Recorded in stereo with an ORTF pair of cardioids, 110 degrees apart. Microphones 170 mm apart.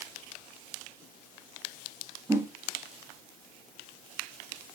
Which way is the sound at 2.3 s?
15° right.